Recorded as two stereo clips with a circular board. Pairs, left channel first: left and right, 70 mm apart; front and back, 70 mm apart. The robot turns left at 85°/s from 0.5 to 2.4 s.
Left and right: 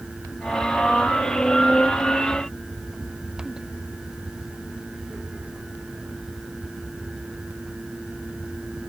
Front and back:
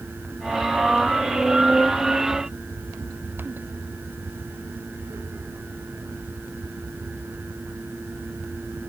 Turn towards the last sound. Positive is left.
No sound to turn to.